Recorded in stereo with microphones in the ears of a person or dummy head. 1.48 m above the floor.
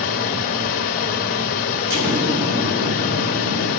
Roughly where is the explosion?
Right.